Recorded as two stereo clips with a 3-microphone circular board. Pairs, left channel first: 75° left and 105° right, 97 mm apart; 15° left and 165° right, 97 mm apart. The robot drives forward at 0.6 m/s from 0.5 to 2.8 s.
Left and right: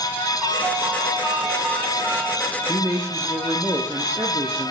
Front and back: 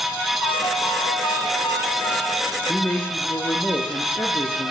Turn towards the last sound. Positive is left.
turn(degrees=-50)